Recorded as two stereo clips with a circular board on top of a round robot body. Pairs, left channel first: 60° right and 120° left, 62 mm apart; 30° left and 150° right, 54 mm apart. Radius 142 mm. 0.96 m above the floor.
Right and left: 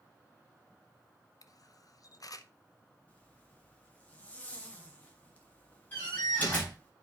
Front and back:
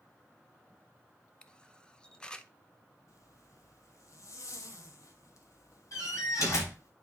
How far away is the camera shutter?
About 0.8 m.